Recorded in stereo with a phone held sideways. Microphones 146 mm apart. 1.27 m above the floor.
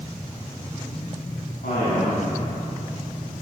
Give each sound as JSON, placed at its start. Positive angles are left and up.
{"t": 1.6, "sound": "a man speaking", "side_deg": 80, "distance_m": 9.5}